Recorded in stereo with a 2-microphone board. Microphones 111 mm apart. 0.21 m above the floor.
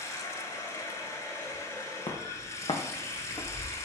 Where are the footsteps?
70° left (ahead or behind), 1.1 m; by 3.7 s 25° left (ahead or behind), 1.2 m.